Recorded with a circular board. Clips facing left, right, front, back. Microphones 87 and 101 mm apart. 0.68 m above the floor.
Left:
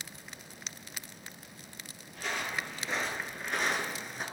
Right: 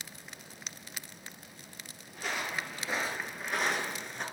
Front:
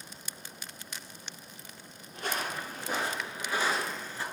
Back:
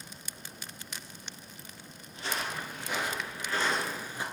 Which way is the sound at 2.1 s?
10° right.